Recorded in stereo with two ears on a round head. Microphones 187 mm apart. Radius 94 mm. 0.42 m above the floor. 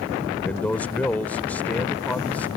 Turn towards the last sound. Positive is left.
turn(degrees=10)  # may be behind; listen again after turning